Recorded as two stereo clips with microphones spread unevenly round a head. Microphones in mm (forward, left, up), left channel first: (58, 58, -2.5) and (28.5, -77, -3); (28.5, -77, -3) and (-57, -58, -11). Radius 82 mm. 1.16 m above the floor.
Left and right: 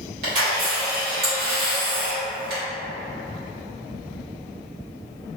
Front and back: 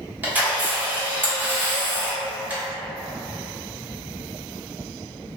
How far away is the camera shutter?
About 1.6 m.